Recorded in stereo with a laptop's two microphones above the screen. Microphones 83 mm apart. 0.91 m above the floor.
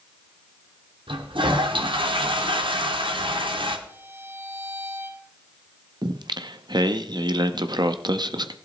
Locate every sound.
1.1 s a toilet flushing: 80° right, 1.4 m
3.9 s a violin: 30° right (ahead or behind), 3 m
6.0 s singing: 60° right (ahead or behind), 0.5 m